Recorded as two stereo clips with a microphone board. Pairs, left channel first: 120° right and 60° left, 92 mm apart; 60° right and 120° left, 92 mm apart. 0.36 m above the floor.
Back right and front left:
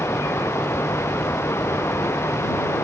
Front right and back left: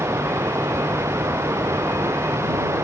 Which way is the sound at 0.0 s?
Straight behind.